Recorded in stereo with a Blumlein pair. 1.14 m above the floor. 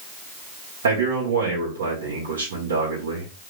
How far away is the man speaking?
About 2 m.